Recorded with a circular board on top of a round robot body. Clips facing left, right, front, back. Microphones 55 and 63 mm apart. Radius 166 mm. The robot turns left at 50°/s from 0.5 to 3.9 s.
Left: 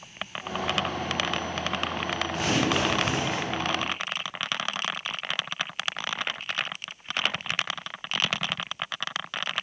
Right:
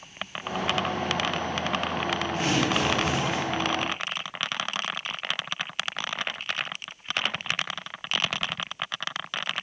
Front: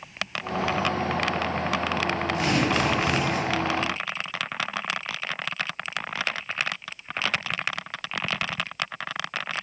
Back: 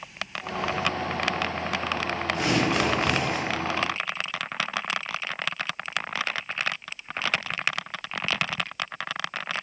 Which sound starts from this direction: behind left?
Tearing paper, at 2.3 s.